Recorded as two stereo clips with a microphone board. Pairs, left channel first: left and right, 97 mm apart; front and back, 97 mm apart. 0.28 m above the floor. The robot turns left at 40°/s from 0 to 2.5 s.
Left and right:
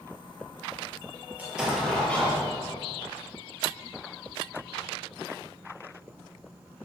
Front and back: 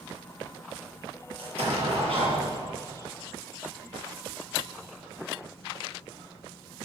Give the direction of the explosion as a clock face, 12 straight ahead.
5 o'clock.